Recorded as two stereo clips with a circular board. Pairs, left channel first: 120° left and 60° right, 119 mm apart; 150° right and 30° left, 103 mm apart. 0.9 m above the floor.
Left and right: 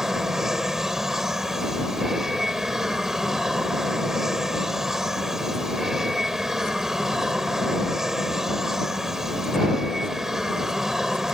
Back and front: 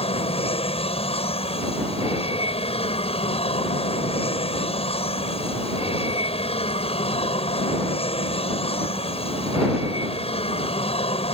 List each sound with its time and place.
0.0 s an aircraft: 145° right